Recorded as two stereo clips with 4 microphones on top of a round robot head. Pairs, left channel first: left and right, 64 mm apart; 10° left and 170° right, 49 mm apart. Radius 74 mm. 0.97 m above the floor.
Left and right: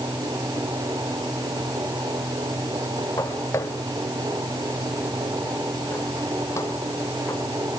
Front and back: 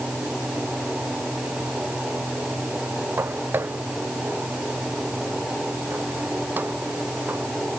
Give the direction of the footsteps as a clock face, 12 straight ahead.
7 o'clock.